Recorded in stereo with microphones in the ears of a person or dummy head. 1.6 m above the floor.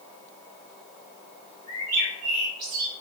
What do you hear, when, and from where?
1.7 s a bird: 50° right (ahead or behind), 1.0 m